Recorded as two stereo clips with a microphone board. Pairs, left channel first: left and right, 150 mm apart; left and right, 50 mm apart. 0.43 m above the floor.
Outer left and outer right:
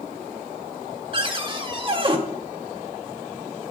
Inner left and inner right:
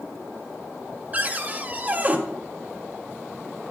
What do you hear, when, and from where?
1.1 s a cupboard door: 35° right (ahead or behind), 1.2 m